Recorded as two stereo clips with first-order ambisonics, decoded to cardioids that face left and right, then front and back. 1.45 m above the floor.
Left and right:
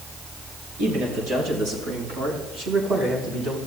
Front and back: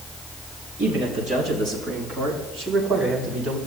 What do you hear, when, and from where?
0.8 s a man speaking: 115° right, 4 m; by 3.6 s 125° right, 5.5 m